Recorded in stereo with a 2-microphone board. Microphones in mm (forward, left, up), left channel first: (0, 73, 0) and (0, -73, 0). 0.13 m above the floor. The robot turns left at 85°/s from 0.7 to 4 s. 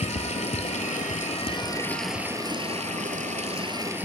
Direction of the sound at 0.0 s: 115° left.